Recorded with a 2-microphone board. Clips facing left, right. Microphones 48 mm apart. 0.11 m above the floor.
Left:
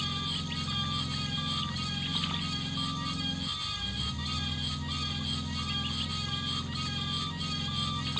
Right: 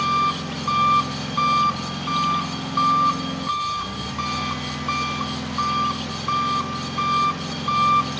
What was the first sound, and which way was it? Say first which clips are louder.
An engine running: right 15 dB; 80° right.